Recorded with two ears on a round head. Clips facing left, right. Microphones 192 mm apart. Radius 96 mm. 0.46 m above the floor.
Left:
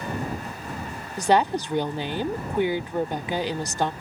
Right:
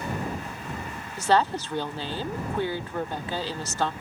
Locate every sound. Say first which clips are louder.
1.2 s a woman speaking: left 2 dB; 15° left (ahead or behind)